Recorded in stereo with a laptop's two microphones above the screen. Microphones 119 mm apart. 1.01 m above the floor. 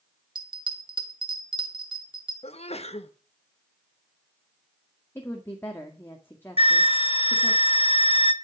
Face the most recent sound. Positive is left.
turn(degrees=55)  # may be behind; listen again after turning